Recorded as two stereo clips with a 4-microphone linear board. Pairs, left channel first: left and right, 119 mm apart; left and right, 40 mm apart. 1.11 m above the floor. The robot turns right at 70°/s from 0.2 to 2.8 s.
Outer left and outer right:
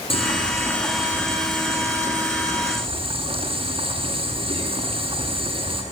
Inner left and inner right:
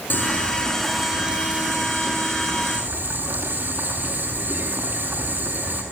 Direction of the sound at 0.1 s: 125° left.